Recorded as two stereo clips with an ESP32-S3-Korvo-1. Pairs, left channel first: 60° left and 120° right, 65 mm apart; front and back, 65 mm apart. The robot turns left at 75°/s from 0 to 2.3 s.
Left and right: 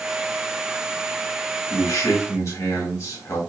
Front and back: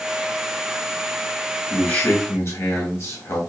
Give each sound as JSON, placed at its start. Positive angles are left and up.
{"t": 1.7, "sound": "a man speaking", "azimuth_deg": 80, "distance_m": 2.0}